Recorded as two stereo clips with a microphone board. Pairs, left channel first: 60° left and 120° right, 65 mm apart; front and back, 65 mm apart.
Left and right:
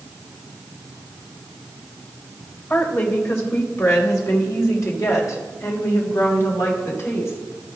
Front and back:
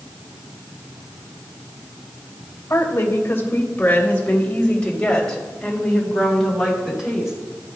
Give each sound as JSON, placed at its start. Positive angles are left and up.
{"t": 2.7, "sound": "a woman speaking", "azimuth_deg": 25, "distance_m": 2.0}